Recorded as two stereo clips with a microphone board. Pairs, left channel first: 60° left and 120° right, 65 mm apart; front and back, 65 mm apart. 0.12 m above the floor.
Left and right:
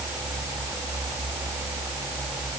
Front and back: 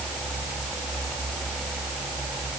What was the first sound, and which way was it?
Only background noise.